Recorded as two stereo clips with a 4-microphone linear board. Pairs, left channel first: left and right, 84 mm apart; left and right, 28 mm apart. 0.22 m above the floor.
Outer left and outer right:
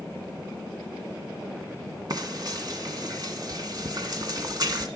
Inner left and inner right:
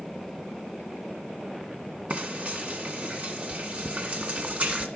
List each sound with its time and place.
2.1 s frying: 50° right (ahead or behind), 1.5 m